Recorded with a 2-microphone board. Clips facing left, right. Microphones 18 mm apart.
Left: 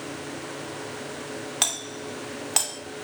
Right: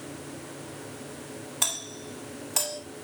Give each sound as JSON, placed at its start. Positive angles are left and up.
{"t": 1.6, "sound": "a doorbell", "side_deg": 50, "distance_m": 2.5}